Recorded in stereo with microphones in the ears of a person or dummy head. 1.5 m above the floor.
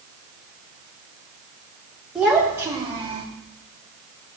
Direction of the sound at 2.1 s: 5° right (ahead or behind).